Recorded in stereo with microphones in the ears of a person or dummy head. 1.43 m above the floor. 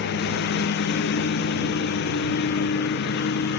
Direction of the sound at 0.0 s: 55° left (ahead or behind).